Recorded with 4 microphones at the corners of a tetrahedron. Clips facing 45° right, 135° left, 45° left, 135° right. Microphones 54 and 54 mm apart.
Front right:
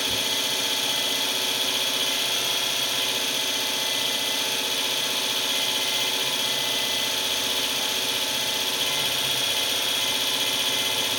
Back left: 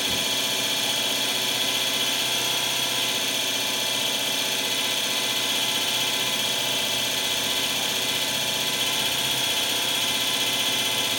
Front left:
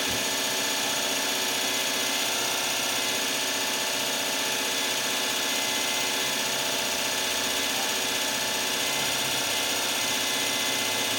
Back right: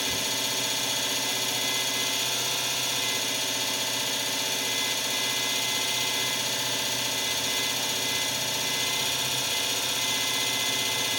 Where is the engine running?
55° left, 1.2 m.